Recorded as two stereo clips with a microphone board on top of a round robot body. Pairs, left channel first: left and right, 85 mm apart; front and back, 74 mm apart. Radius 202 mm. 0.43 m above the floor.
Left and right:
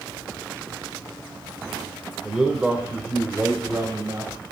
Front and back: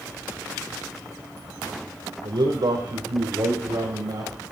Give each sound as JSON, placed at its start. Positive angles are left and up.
{"t": 2.2, "sound": "a man speaking", "azimuth_deg": -175, "distance_m": 2.5}